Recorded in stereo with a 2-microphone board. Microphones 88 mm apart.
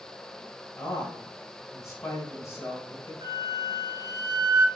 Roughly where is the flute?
Right.